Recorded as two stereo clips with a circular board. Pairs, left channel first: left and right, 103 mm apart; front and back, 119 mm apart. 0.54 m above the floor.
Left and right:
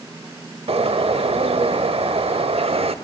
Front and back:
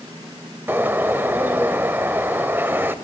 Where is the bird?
105° right, 0.7 m.